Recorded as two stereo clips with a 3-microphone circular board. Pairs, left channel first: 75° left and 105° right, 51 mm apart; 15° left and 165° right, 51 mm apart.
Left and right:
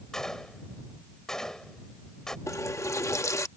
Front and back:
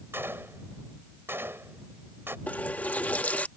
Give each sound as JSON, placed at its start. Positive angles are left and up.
{"t": 0.1, "sound": "a gunshot", "azimuth_deg": 155}
{"t": 2.5, "sound": "a running tap", "azimuth_deg": 75}